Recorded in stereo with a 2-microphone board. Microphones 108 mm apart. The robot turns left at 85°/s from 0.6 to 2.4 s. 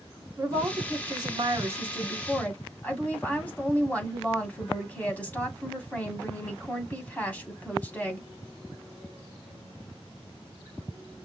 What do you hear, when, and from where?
0.4 s a woman speaking: 50° right, 1.9 m; by 8.2 s 160° left, 1.9 m